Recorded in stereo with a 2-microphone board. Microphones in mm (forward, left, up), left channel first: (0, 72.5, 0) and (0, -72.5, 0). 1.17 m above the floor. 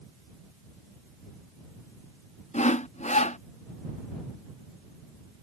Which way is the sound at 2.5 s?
50° left (ahead or behind).